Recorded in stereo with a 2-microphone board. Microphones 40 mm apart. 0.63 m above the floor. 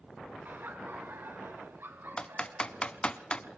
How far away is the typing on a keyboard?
About 1.0 m.